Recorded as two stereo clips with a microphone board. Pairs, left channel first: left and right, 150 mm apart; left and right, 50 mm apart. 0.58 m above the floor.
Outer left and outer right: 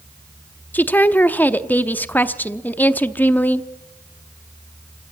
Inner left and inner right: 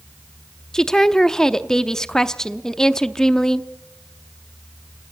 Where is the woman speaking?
10° left (ahead or behind), 0.7 m.